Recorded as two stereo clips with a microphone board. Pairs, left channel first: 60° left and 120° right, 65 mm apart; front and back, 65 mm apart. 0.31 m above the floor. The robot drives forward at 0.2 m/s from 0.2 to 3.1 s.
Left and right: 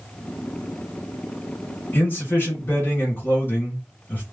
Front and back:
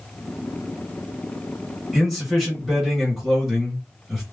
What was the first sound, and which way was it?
A man speaking, 90° left.